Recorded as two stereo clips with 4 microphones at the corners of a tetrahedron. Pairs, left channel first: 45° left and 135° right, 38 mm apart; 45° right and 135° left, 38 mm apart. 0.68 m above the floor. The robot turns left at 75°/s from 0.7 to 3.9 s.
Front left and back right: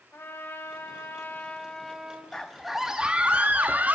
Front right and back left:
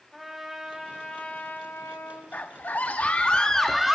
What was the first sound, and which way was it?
A trumpet, 50° left.